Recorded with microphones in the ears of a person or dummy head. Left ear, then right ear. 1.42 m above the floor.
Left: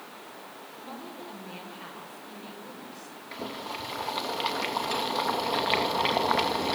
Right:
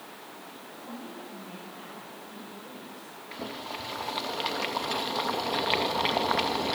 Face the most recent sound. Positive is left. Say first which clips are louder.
# left 1 dB
turn(degrees=5)  # may be behind; listen again after turning